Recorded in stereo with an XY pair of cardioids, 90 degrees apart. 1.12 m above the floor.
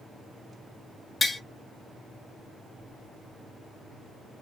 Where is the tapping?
25° left, 0.7 m.